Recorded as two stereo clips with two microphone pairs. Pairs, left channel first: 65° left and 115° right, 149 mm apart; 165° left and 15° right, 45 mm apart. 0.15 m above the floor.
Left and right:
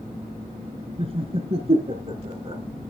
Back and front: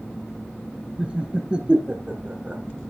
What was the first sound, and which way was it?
Laughter, 75° right.